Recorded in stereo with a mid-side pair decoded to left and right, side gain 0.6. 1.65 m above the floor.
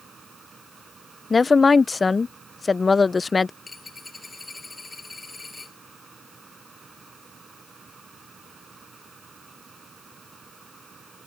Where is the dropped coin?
15° left.